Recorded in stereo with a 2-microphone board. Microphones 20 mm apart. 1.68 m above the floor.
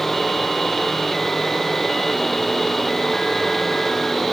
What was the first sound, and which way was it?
Only background noise.